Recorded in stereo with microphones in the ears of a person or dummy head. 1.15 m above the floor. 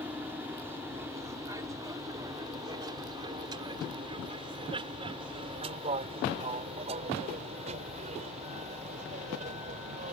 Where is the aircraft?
10° right (ahead or behind); by 10.1 s 40° right (ahead or behind).